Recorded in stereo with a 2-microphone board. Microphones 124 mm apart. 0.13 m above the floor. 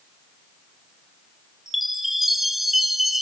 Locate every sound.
1.7 s a chime: centre (ahead or behind), 0.9 m